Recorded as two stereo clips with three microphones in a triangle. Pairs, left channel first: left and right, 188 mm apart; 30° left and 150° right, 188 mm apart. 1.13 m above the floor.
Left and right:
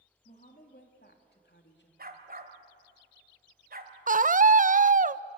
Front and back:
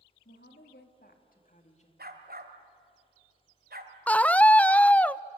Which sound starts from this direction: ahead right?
A scream, at 4.1 s.